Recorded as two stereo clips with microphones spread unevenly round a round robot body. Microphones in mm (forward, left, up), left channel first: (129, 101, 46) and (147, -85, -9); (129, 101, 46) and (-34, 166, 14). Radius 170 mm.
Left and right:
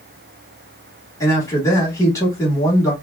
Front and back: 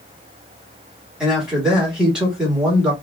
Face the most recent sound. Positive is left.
turn(degrees=-165)